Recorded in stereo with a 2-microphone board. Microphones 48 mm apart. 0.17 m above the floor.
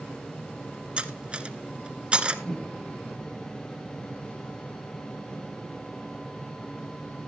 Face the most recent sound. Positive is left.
turn(degrees=20)  # may be behind; listen again after turning